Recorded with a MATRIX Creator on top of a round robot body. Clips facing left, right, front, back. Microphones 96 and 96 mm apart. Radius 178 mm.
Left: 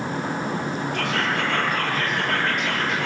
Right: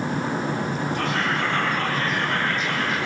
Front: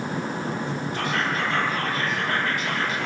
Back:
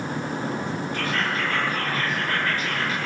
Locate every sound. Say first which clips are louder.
0.9 s whispering: left 1 dB, front 2 dB; 75° left, 8 m